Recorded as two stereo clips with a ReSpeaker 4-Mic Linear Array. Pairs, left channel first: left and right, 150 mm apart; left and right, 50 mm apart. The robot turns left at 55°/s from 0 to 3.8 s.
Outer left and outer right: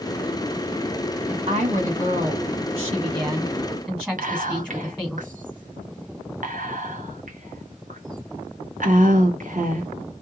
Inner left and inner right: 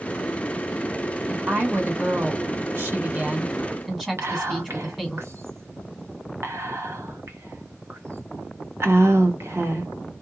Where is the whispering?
70° right (ahead or behind), 0.8 m.